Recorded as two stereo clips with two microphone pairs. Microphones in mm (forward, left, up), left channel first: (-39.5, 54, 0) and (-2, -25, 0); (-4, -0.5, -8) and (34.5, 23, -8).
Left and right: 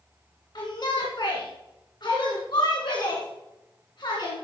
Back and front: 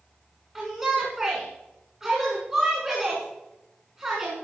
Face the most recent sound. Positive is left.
turn(degrees=105)